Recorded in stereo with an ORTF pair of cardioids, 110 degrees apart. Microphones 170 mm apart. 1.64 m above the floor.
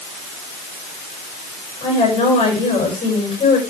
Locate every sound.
1.8 s a woman speaking: 35° left, 10 m